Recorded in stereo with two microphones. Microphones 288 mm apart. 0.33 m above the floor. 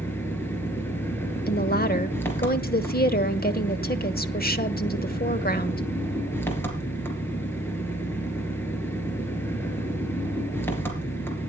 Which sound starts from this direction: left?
A woman speaking, at 1.5 s.